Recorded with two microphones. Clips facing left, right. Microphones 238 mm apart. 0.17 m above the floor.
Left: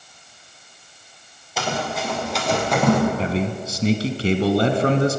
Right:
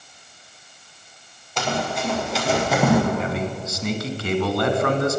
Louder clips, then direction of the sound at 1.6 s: Right 1 dB; 5° left (ahead or behind).